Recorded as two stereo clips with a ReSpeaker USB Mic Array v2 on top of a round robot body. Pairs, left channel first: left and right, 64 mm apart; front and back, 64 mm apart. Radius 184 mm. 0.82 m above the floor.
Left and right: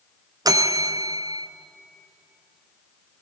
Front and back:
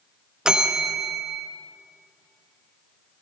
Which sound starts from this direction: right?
A bell, at 0.5 s.